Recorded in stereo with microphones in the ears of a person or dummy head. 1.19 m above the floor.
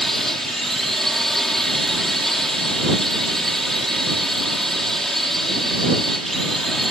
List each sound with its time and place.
0.0 s a drone: centre (ahead or behind)